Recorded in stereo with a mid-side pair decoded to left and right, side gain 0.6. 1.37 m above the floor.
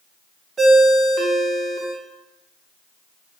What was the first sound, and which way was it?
A ringtone, 30° right.